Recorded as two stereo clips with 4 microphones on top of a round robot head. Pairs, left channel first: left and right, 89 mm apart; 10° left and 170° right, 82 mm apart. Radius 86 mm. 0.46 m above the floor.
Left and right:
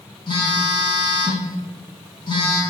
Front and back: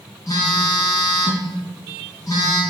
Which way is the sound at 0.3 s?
55° left.